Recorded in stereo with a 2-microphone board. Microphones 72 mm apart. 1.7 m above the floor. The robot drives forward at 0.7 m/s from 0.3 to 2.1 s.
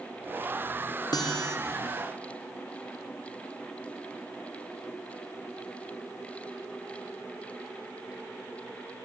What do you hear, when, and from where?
1.1 s a guitar: 65° left (ahead or behind), 2.5 m; by 1.6 s 70° left (ahead or behind), 2.5 m